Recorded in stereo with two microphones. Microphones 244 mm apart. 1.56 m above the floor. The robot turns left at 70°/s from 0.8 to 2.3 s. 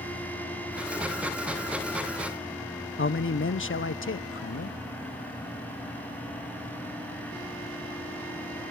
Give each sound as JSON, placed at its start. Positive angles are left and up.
{"t": 3.0, "sound": "a man speaking", "side_deg": 55, "distance_m": 0.5}